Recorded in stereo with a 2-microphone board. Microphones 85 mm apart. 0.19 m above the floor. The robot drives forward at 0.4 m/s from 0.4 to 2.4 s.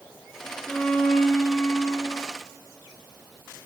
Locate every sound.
0.7 s a violin: 15° left (ahead or behind), 1.0 m; by 2.3 s 30° left (ahead or behind), 0.5 m